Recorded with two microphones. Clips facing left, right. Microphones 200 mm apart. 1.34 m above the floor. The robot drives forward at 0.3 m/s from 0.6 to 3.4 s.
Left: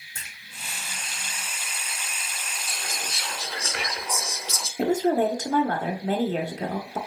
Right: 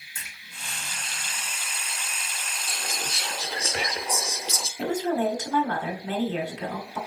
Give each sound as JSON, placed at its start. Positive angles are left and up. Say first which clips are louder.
{"t": 0.1, "sound": "a splash", "louder": "even", "side_deg": 70, "distance_m": 3.0}
{"t": 2.7, "sound": "whispering", "louder": "right 2 dB", "side_deg": -25, "distance_m": 0.5}
{"t": 4.8, "sound": "a woman speaking", "louder": "left 4 dB", "side_deg": 45, "distance_m": 0.9}